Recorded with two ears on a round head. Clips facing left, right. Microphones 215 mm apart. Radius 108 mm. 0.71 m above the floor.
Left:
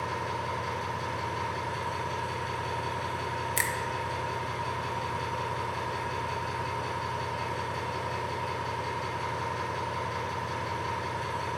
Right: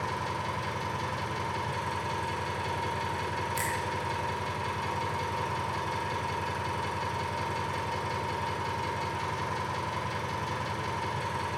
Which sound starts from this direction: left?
A finger snap, at 3.6 s.